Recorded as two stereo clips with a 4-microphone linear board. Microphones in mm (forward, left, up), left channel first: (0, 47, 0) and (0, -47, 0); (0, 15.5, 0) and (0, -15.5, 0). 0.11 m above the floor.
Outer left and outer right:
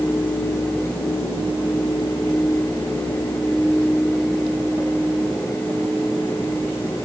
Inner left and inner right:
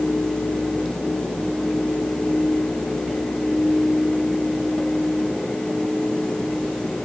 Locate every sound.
Only background noise.